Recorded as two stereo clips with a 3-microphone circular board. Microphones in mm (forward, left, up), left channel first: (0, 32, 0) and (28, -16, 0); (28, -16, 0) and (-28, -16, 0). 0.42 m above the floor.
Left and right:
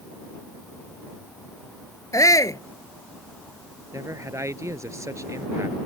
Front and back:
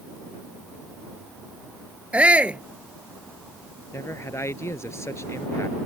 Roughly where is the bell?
I don't hear a bell.